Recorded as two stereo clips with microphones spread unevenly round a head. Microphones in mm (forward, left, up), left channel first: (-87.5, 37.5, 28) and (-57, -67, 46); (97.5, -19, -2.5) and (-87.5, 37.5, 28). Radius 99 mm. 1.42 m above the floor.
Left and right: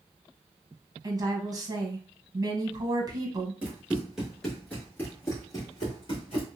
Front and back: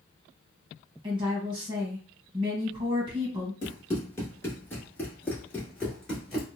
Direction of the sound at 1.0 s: 125° right.